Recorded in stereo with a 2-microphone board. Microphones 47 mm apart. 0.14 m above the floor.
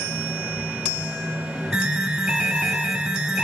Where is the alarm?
20° right (ahead or behind), 1.6 m.